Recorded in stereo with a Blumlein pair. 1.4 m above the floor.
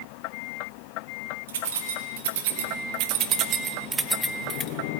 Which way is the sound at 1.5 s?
60° right.